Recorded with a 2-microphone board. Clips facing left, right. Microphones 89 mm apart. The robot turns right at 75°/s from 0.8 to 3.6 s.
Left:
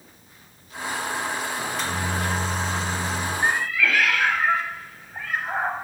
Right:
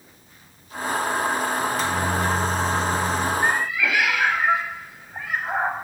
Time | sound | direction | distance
1.6 | a microwave | 165° left | 1.0 m
3.4 | a cat meowing | centre (ahead or behind) | 0.6 m